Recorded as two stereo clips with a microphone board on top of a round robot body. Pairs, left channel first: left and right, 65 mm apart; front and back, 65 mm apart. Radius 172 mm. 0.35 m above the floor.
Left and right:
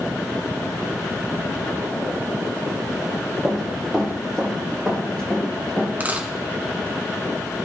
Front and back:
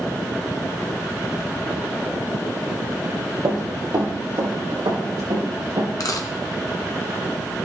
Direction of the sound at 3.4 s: 175° right.